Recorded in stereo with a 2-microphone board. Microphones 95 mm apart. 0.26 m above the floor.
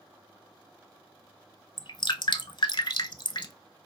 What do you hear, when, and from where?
1.8 s dripping: 60° left (ahead or behind), 0.5 m